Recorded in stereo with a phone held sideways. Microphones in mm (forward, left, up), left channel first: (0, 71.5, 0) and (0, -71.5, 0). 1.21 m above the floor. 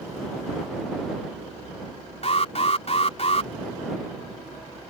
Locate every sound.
2.2 s an alarm: 50° left (ahead or behind)